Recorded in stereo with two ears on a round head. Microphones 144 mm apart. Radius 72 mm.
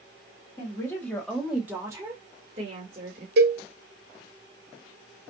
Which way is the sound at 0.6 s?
20° left (ahead or behind).